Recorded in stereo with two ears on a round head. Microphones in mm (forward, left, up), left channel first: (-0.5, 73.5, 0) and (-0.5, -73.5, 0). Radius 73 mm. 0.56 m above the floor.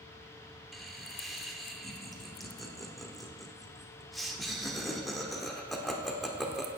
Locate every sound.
0.7 s laughter: centre (ahead or behind), 1.4 m